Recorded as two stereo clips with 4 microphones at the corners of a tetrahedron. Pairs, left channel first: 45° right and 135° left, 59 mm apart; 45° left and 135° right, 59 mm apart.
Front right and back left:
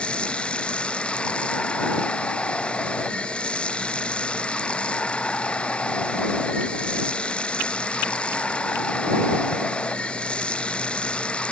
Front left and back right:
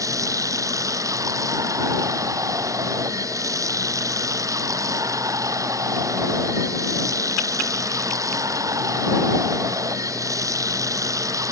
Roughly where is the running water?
Behind right.